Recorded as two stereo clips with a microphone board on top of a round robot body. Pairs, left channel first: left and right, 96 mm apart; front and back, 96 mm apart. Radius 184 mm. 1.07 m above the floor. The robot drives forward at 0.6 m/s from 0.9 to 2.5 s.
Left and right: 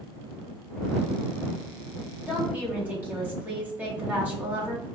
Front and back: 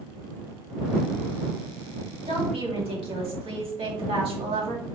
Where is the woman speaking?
160° right, 1.8 m; by 4.8 s 165° right, 1.9 m.